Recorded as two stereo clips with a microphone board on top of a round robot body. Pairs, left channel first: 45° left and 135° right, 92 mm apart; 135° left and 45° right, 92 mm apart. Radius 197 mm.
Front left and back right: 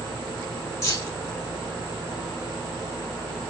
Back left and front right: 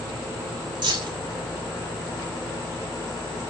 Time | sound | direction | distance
0.8 | keys jangling | 10° right | 2 m